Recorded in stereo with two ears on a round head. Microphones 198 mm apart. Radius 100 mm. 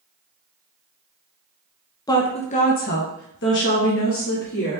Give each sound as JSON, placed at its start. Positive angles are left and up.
{"t": 2.1, "sound": "a woman speaking", "side_deg": 15, "distance_m": 0.8}